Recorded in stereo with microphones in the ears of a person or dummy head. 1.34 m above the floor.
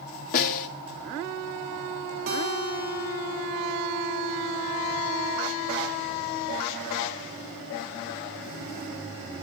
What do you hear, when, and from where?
0.3 s a snare drum: 50° left (ahead or behind), 2 m
2.3 s a guitar: 45° right (ahead or behind), 2.5 m